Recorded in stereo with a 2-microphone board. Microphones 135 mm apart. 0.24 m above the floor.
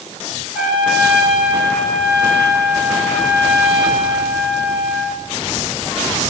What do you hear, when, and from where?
0.5 s a trumpet: 10° right (ahead or behind), 2.5 m